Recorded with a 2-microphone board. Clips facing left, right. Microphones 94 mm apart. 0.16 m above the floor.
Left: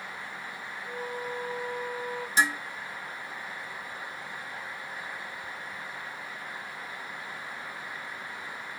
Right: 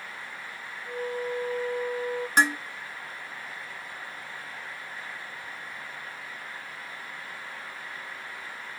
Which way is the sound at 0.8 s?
30° left (ahead or behind).